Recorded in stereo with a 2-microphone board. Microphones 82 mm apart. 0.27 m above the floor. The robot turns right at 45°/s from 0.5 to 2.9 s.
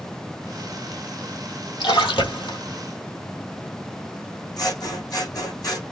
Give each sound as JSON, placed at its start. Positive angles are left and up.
{"t": 1.8, "sound": "a splash", "azimuth_deg": 80, "distance_m": 1.8}
{"t": 4.6, "sound": "scissors", "side_deg": 50, "distance_m": 3.0}